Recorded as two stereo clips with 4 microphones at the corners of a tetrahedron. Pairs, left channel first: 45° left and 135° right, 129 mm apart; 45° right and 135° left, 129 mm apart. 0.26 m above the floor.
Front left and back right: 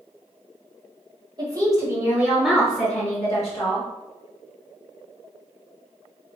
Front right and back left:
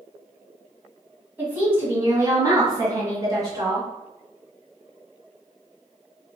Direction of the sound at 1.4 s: 160° right.